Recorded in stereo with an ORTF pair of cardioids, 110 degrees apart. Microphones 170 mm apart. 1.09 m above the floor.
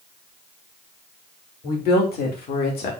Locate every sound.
1.6 s a woman speaking: 60° left, 3 m; by 2.9 s 65° left, 2 m